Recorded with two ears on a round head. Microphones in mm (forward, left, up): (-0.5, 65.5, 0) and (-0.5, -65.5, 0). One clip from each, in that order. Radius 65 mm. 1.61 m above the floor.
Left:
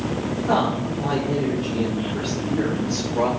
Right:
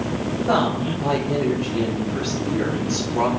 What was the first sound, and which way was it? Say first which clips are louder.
A woman speaking: right 1 dB; 50° right (ahead or behind).